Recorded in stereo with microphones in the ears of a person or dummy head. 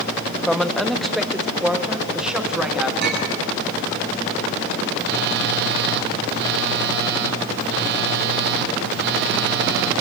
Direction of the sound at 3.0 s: 60° right (ahead or behind).